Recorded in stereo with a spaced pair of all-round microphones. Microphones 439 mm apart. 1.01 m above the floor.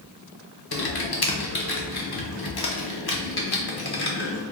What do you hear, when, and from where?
0.7 s typing on a keyboard: 55° left (ahead or behind), 0.6 m